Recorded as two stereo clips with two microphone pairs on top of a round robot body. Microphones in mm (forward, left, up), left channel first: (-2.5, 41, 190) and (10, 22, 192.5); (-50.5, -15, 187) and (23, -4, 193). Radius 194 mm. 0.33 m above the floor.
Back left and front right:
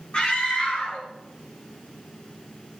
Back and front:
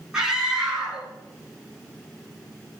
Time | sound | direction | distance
0.1 | a scream | 90° left | 7.5 m